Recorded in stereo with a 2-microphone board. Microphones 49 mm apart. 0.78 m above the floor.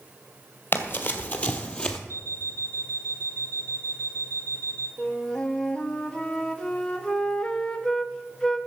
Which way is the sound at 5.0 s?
20° left (ahead or behind).